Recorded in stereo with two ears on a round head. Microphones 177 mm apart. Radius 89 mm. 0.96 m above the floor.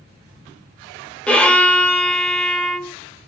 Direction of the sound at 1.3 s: 5° left (ahead or behind).